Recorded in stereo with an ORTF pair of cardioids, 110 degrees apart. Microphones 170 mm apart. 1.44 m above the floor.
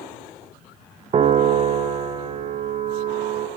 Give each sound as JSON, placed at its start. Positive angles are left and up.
{"t": 1.1, "sound": "a piano", "azimuth_deg": -40, "distance_m": 0.7}